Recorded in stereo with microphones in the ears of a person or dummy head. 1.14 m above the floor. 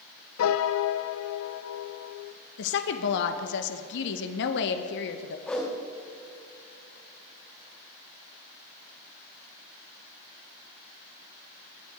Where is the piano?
85° left, 0.6 m.